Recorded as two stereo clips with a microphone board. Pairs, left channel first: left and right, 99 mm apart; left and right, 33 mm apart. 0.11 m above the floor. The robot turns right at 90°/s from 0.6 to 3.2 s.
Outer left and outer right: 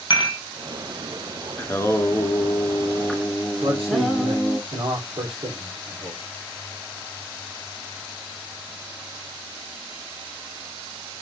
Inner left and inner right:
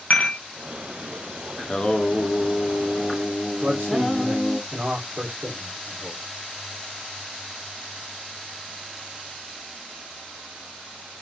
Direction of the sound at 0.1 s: 50° left (ahead or behind).